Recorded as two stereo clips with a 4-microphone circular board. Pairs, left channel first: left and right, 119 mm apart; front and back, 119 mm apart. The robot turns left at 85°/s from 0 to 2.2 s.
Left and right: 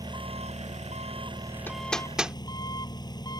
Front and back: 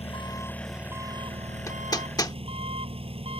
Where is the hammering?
35° left; by 2.4 s 15° right.